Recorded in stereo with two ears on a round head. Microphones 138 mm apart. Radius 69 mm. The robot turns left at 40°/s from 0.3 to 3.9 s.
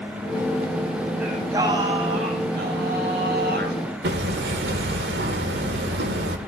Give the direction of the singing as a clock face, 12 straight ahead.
12 o'clock.